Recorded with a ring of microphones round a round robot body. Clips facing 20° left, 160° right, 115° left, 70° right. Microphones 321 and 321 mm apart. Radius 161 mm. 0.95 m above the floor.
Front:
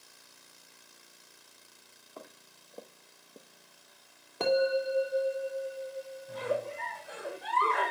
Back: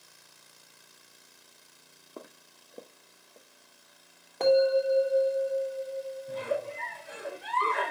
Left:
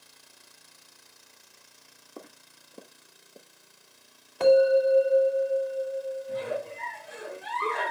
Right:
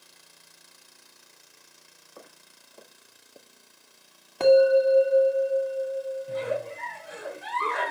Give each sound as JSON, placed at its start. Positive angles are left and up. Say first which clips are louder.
{"t": 2.2, "sound": "footsteps", "louder": "back 4 dB, left 5 dB", "azimuth_deg": 155, "distance_m": 1.6}
{"t": 4.4, "sound": "a bell", "louder": "back 5 dB, right 2 dB", "azimuth_deg": -55, "distance_m": 2.5}
{"t": 6.3, "sound": "a giggle", "louder": "front 1 dB, right 2 dB", "azimuth_deg": -95, "distance_m": 4.5}